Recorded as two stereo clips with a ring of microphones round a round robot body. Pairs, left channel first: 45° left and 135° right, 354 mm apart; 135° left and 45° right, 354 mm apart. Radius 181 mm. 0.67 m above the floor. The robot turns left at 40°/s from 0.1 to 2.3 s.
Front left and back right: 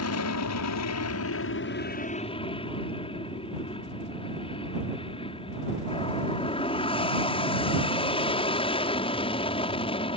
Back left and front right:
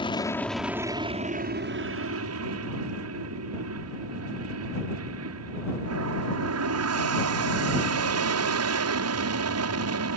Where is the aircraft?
65° left; by 10.2 s 25° right.